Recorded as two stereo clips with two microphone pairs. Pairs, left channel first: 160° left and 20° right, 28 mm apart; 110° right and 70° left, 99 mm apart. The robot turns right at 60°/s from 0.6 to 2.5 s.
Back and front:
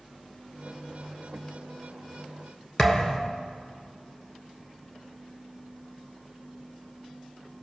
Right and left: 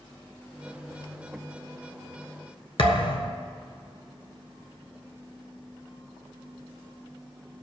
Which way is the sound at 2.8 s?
135° right.